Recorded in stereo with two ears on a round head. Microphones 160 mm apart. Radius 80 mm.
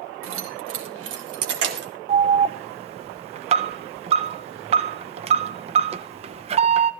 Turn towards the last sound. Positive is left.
turn(degrees=-35)  # may be behind; listen again after turning